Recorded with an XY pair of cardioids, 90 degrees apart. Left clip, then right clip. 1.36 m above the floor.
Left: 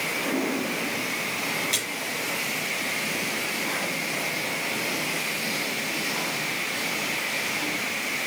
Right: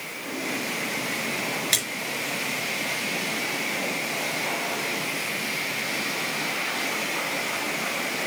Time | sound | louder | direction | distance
1.7 | a splash | right 3 dB | 65° right | 4 m